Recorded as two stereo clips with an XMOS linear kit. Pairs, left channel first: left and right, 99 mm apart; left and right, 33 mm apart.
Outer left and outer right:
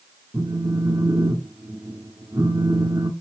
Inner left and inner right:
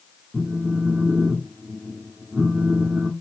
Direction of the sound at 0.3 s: 35° right (ahead or behind).